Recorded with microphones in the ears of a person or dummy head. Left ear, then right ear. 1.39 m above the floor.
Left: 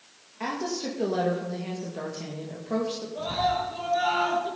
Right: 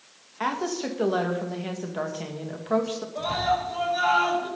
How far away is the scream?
About 6 m.